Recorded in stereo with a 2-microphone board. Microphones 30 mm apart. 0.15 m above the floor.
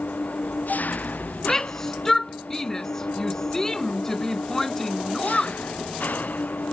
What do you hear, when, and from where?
0.0 s an engine running: 65° left (ahead or behind)
1.4 s a shout: 15° left (ahead or behind)